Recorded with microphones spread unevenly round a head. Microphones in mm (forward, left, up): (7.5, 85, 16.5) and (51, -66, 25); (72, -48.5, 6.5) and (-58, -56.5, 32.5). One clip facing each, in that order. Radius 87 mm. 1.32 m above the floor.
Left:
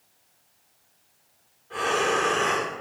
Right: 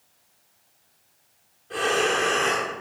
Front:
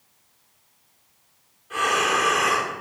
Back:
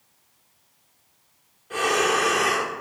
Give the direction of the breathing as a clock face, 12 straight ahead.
4 o'clock.